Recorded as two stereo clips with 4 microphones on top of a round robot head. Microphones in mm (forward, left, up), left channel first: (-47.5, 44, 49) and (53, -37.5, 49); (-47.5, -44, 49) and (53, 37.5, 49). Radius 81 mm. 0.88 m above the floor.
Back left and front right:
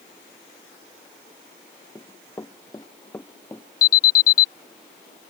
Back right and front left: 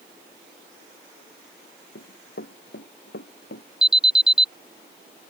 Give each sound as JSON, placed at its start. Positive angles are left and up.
{"t": 1.9, "sound": "running footsteps", "azimuth_deg": -145}
{"t": 3.8, "sound": "an alarm", "azimuth_deg": 125}